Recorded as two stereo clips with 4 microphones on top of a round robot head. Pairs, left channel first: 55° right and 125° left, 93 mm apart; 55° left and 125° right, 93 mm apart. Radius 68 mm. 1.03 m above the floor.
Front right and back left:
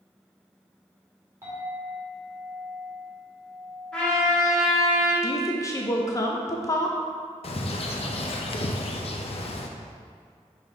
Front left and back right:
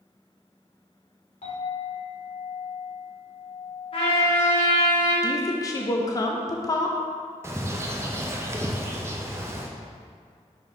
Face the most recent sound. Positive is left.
turn(degrees=-65)